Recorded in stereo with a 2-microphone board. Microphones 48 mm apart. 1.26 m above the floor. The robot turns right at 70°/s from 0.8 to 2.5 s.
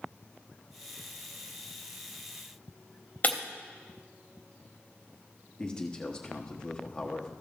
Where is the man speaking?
20° left (ahead or behind), 1.0 m.